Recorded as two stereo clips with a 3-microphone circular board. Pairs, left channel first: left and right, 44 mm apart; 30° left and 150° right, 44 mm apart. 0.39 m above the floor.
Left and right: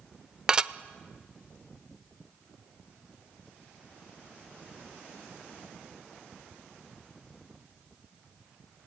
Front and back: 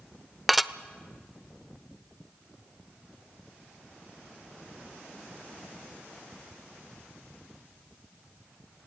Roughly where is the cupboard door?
I don't hear a cupboard door.